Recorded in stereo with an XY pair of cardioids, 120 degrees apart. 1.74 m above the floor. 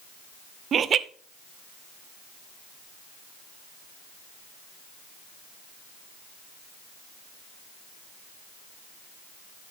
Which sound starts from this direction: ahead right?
Laughter, at 0.7 s.